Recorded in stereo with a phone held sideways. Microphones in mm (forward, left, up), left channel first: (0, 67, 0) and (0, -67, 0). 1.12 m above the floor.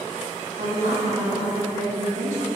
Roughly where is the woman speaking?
Right.